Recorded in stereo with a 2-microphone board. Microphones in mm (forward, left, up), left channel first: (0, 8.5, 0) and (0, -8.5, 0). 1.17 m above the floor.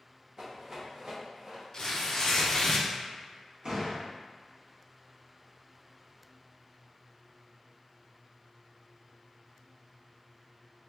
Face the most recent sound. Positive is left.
turn(degrees=-45)  # may be behind; listen again after turning